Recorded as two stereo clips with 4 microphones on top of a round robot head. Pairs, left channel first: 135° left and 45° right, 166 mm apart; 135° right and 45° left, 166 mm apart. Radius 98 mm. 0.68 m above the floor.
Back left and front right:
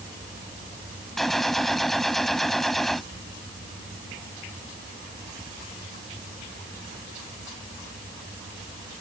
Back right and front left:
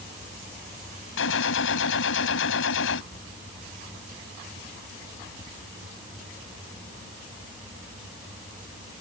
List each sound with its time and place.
1.2 s a gunshot: 135° right